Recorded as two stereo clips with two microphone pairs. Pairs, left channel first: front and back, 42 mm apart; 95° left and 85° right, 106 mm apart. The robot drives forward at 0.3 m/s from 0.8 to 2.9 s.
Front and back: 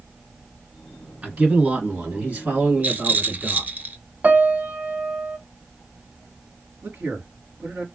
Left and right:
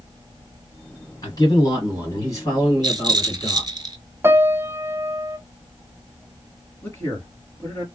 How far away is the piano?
About 0.6 m.